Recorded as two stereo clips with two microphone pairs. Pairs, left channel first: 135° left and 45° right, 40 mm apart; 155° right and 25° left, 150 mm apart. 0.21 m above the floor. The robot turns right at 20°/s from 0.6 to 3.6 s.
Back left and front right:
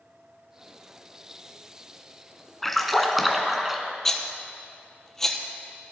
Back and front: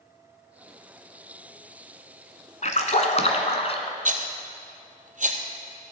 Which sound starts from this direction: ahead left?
A rattle, at 4.0 s.